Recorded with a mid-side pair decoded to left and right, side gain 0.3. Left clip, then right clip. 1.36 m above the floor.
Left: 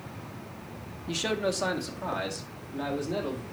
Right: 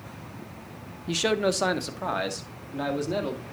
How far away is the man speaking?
About 0.7 m.